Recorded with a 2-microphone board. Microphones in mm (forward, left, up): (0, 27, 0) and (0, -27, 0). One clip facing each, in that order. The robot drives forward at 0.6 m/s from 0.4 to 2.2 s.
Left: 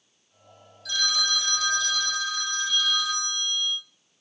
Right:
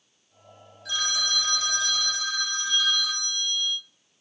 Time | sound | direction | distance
0.8 | a phone ringing | 25° right (ahead or behind) | 1.7 m